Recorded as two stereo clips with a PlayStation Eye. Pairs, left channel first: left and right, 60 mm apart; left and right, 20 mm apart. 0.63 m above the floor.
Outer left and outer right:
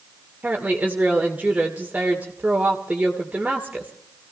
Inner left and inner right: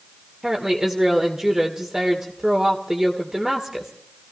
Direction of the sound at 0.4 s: 25° right (ahead or behind).